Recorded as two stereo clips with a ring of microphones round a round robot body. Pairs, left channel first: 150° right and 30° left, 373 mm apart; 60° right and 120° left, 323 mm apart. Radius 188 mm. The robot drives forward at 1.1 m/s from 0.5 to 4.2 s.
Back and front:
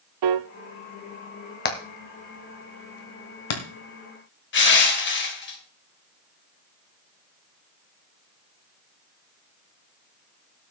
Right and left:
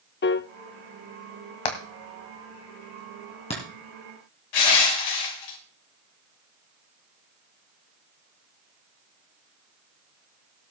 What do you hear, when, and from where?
0.2 s a piano: straight ahead, 0.7 m
1.6 s hammering: 85° right, 1.9 m; by 3.6 s 135° right, 3 m
4.5 s crushing: 90° right, 2 m